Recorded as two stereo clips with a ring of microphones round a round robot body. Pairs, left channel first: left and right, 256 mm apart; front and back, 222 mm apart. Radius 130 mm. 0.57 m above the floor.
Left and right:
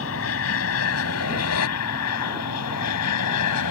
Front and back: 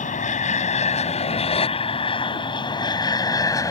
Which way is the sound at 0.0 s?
55° left.